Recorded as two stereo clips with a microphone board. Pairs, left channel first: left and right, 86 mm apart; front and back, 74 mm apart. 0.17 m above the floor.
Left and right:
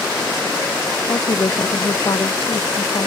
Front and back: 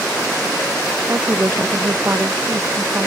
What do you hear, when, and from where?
1.1 s a woman speaking: 125° left